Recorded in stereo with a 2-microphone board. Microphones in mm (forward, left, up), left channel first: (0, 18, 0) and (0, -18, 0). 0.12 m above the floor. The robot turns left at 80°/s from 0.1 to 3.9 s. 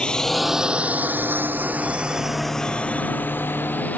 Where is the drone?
25° left (ahead or behind); by 4.0 s 55° left (ahead or behind).